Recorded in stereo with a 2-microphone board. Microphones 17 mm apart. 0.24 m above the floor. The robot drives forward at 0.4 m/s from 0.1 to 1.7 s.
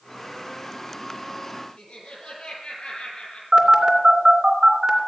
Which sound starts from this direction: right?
A phone buzzing, at 3.5 s.